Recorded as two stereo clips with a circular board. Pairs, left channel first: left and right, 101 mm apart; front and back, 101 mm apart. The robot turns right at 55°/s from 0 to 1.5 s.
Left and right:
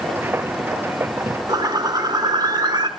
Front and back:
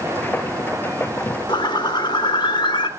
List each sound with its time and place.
1.5 s a bird: 45° right, 0.9 m; by 2.9 s 40° right, 0.9 m